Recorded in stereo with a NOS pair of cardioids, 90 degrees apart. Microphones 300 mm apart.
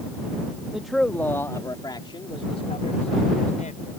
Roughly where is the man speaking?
Ahead.